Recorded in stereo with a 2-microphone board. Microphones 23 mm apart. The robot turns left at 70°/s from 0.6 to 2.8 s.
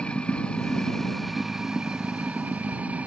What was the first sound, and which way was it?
Running water, 50° left.